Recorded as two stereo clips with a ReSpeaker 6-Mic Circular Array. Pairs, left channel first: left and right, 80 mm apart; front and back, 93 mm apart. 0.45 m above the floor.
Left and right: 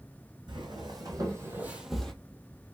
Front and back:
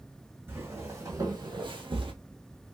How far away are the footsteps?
About 1.6 m.